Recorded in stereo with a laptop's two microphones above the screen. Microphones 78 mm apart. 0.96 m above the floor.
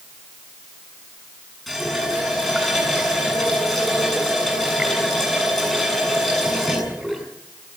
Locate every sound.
1.7 s a running tap: 5° left (ahead or behind), 7 m